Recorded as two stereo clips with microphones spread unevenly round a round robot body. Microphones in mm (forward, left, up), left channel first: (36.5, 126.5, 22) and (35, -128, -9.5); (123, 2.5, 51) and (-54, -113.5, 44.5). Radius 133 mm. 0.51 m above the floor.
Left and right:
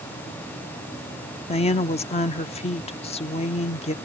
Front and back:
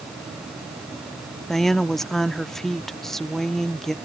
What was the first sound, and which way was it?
A woman speaking, 125° left.